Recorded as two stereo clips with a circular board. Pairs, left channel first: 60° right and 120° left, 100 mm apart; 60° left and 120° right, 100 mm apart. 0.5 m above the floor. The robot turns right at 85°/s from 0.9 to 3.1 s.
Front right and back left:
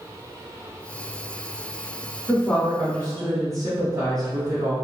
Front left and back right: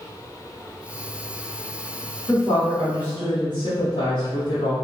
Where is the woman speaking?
Straight ahead, 1.0 m; by 4.7 s 70° left, 1.0 m.